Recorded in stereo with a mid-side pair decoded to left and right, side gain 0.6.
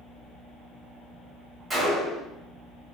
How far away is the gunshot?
About 1.7 m.